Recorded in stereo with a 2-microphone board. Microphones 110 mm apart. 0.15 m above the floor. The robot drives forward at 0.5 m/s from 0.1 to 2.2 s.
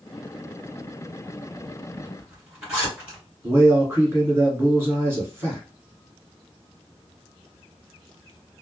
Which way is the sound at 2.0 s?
10° right (ahead or behind).